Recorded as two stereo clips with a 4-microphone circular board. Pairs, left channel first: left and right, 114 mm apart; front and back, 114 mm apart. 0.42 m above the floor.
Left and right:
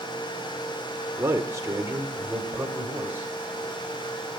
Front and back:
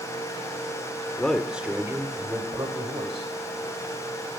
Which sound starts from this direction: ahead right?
A man speaking, at 1.2 s.